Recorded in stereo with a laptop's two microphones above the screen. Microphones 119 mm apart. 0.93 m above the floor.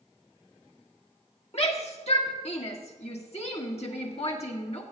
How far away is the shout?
About 1.5 m.